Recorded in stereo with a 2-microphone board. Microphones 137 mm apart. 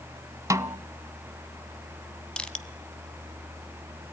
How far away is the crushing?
About 0.8 m.